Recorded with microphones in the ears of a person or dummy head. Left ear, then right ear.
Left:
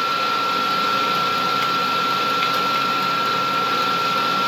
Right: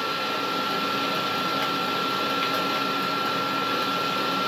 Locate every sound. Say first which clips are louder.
0.0 s a machine running: left 7 dB; 10° left (ahead or behind), 0.7 m